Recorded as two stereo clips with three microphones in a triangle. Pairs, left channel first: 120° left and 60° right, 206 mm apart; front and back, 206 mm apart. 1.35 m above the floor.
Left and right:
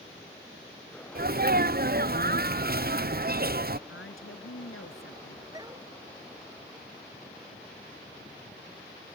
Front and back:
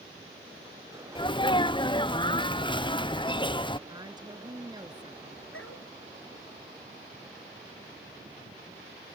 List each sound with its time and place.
1.1 s a sneeze: 55° right
3.9 s a woman speaking: 110° left
5.5 s a dog barking: 15° left